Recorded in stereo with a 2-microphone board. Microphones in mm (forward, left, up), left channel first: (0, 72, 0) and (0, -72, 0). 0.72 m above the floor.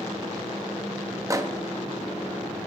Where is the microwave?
25° right (ahead or behind), 0.6 m.